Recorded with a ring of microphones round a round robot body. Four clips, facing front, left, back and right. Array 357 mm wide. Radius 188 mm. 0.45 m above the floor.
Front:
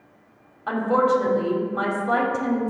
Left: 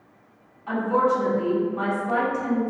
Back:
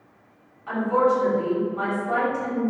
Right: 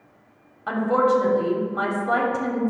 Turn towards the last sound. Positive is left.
turn(degrees=-45)